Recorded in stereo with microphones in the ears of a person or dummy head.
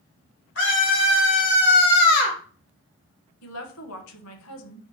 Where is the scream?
70° left (ahead or behind), 2.5 m; by 2.4 s 45° left (ahead or behind), 1.6 m.